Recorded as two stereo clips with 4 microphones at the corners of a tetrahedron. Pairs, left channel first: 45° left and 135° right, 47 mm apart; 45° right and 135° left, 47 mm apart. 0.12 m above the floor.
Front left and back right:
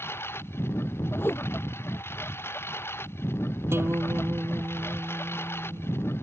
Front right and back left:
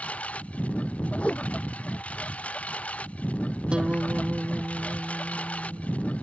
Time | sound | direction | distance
0.0 | a lawn mower | 15° left | ?
1.2 | a whoosh | 15° left | ?
3.7 | a guitar | 160° right | ?